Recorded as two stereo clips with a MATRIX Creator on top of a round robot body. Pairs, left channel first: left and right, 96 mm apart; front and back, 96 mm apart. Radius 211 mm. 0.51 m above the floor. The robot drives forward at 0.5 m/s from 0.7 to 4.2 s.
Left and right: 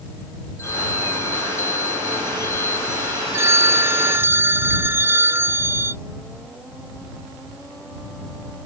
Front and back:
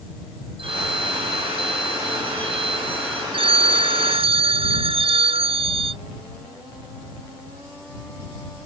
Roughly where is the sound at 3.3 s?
Behind right.